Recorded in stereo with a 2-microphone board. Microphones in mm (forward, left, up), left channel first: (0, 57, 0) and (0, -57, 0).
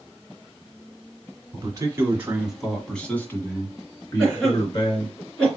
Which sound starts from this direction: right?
A man speaking, at 1.5 s.